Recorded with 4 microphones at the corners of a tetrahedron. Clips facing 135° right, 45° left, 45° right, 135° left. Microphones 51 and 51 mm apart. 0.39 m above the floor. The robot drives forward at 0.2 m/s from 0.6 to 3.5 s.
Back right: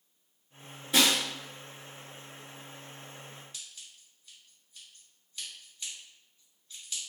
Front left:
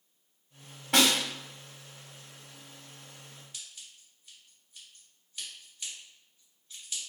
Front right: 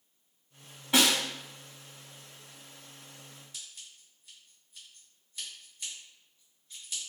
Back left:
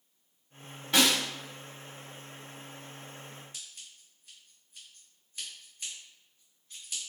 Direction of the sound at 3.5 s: 115° left.